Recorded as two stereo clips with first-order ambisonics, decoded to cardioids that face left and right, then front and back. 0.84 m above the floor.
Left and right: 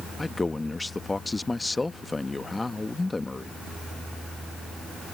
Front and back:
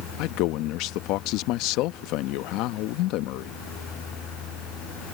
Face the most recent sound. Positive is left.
turn(degrees=10)